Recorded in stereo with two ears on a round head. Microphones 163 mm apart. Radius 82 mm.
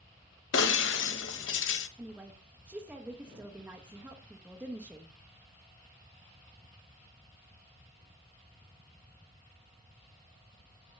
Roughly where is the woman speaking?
Centre.